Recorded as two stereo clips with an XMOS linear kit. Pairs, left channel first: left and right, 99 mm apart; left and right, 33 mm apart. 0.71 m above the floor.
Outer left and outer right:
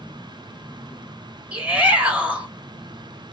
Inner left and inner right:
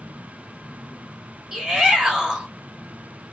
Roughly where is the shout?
Centre.